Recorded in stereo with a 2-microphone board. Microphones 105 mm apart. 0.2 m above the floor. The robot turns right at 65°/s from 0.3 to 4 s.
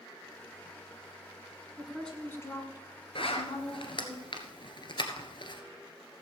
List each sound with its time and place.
1.8 s a woman speaking: 10° right, 2 m; by 4.2 s 135° left, 2 m
3.1 s a zipper: 65° left (ahead or behind), 1.4 m; by 5.6 s 55° left (ahead or behind), 1.4 m